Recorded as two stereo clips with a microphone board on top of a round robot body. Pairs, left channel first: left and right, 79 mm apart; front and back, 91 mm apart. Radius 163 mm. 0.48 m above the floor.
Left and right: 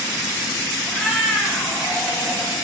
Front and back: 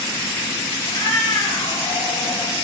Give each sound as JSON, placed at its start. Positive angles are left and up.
{"t": 0.8, "sound": "a cat meowing", "azimuth_deg": 5, "distance_m": 6.5}